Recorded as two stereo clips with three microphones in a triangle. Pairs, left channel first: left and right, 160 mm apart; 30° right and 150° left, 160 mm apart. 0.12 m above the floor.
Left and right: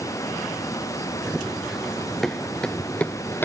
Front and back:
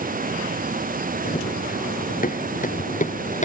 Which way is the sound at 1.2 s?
5° right.